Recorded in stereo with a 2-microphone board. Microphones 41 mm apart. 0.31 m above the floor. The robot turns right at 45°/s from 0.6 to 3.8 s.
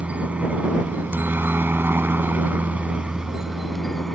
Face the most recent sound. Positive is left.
turn(degrees=0)